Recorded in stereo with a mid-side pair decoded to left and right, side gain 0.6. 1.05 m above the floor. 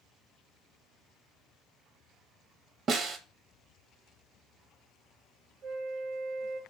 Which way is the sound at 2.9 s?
45° right.